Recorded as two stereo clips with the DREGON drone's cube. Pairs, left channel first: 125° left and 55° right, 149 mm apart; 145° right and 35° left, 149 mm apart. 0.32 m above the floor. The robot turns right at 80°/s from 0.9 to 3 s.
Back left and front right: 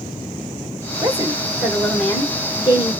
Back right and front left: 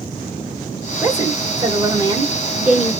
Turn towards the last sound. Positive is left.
turn(degrees=135)